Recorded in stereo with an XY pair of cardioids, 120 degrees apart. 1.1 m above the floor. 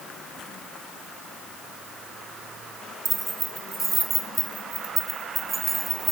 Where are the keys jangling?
35° right, 3 m; by 6.1 s 30° right, 5 m.